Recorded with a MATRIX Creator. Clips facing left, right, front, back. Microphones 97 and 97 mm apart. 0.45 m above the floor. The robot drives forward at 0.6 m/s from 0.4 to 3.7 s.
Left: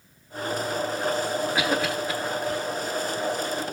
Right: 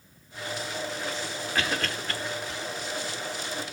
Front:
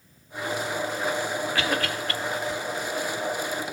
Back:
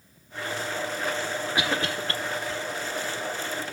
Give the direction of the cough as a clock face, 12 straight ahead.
7 o'clock.